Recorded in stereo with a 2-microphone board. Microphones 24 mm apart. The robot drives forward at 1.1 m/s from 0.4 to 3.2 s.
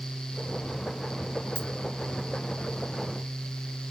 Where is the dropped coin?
60° left (ahead or behind), 0.8 m.